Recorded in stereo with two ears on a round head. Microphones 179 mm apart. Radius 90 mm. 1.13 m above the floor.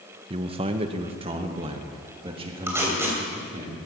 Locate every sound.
0.3 s a man speaking: 30° right (ahead or behind), 0.6 m; by 3.7 s 25° right (ahead or behind), 2.5 m
2.7 s tape being pulled: 15° right (ahead or behind), 3 m